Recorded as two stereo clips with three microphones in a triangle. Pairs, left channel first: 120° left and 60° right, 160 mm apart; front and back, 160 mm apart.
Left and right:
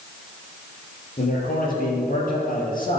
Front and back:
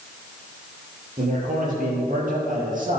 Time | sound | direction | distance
1.2 | a man speaking | 150° left | 6.5 m